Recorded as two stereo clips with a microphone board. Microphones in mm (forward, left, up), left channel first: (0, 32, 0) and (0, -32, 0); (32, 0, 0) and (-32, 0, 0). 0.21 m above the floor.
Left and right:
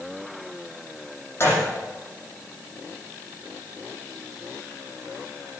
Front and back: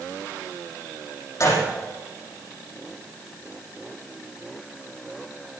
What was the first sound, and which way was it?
A gunshot, 35° left.